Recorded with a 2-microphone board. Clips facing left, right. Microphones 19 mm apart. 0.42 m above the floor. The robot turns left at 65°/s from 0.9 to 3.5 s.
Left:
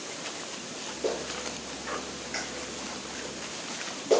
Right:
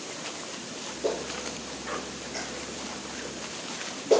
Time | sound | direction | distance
1.0 | a clap | centre (ahead or behind) | 4 m